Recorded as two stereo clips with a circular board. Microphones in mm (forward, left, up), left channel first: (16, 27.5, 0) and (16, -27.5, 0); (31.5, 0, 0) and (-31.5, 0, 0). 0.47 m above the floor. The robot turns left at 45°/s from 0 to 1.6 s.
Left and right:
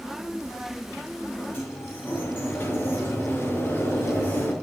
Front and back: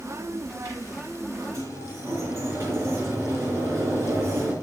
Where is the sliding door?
145° left, 4.5 m; by 4.5 s 135° left, 4.5 m.